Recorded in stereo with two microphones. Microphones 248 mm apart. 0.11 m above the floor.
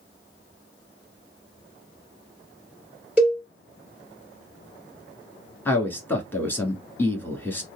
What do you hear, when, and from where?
3.2 s a cowbell: 5° right (ahead or behind), 2.5 m
5.7 s a man speaking: 10° left (ahead or behind), 1.4 m